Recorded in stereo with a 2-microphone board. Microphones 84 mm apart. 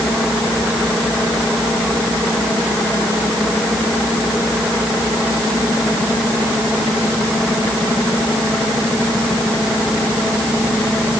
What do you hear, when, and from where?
Only background noise.